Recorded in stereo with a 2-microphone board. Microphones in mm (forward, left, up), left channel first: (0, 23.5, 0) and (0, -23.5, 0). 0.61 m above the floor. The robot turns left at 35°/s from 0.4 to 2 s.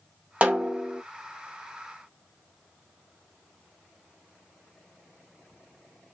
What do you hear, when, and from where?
0.4 s a snare drum: 30° right (ahead or behind), 0.8 m; by 1.0 s 10° right (ahead or behind), 0.8 m